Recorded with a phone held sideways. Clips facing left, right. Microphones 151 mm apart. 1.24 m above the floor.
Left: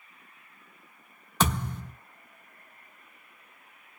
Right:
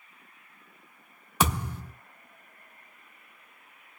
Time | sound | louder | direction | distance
1.4 | a thud | even | 10° right (ahead or behind) | 0.8 m